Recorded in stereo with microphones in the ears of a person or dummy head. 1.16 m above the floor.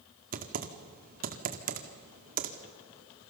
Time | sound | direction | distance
0.3 | typing on a keyboard | 45° right (ahead or behind) | 1.8 m